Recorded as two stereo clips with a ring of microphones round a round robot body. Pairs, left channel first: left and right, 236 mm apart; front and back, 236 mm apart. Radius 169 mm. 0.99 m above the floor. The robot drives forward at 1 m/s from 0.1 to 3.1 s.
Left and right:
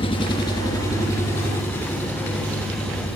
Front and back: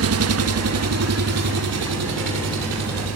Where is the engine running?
165° left, 1.2 m; by 3.2 s 175° left, 4 m.